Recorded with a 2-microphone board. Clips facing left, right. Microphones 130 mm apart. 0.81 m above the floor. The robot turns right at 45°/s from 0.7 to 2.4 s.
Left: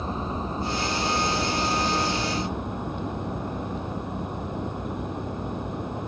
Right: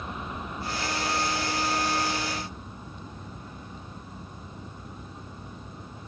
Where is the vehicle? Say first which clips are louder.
Left 7 dB; 35° left; by 6.1 s 110° left.